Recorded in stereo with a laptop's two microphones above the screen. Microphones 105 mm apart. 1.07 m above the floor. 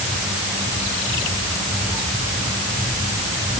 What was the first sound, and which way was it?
Only background noise.